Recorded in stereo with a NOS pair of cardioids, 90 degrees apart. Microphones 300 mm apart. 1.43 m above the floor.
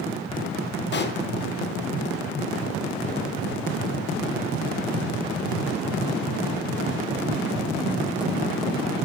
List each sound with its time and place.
0.9 s a pop: 35° left, 1.0 m